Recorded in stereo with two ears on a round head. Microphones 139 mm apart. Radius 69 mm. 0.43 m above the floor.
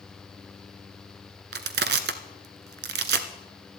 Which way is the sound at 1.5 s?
70° right (ahead or behind).